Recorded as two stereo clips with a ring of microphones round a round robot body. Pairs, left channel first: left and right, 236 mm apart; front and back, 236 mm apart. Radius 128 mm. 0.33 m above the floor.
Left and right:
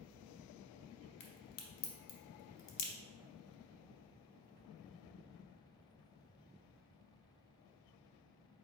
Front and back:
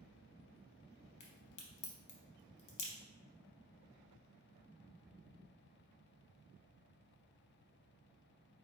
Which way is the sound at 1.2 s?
55° left.